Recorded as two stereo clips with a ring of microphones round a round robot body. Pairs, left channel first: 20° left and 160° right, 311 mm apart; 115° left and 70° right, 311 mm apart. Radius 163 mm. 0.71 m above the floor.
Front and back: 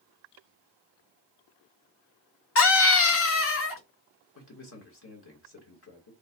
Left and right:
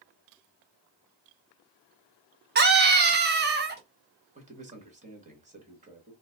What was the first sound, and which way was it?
A scream, 15° right.